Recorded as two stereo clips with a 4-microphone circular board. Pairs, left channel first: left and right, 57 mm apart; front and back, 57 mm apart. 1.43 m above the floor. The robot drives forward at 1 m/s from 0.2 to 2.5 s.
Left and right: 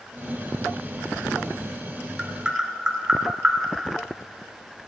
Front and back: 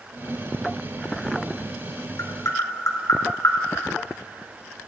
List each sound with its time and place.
2.2 s tapping: 10° right, 2 m; by 3.6 s 15° right, 1.9 m